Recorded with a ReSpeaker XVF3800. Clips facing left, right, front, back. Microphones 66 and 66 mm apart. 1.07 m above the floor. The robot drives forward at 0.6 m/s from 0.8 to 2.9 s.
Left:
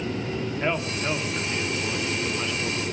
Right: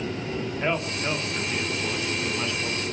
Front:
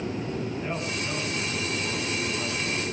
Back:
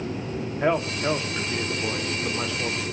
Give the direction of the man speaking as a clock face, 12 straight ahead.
6 o'clock.